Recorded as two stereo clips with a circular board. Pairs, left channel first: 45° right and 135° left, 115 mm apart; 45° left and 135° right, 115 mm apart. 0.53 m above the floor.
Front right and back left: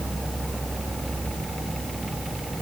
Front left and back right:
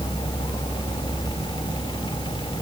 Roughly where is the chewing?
I don't hear chewing.